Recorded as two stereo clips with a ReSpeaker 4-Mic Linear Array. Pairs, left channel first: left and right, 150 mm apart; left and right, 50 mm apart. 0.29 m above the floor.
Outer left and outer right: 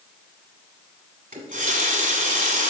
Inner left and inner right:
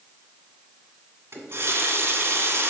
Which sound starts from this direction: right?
A running tap, at 1.3 s.